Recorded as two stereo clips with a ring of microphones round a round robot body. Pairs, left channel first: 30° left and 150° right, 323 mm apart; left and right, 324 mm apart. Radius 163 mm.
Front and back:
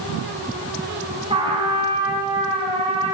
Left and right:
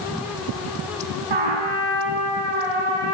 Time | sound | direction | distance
1.3 | a trumpet | 75° right | 8 m